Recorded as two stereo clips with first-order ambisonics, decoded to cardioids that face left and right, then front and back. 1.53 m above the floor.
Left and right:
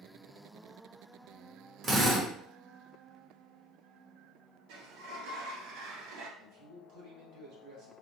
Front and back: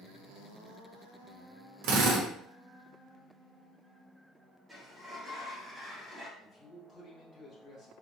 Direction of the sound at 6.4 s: 65° right.